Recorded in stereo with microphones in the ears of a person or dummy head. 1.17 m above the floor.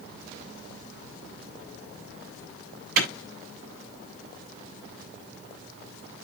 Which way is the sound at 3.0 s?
55° right (ahead or behind).